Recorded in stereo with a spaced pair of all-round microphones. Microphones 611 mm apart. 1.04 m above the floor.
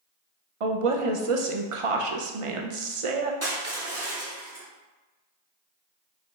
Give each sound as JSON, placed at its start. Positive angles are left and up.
{"t": 0.6, "sound": "a woman speaking", "side_deg": -60, "distance_m": 0.6}
{"t": 3.4, "sound": "crushing", "side_deg": -25, "distance_m": 0.9}